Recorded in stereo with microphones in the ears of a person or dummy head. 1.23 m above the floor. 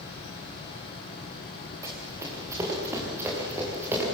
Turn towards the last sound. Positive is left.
turn(degrees=-15)  # may be behind; listen again after turning